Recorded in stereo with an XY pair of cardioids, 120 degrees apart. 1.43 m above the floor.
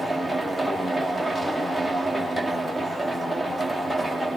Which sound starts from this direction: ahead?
A machine running, at 0.0 s.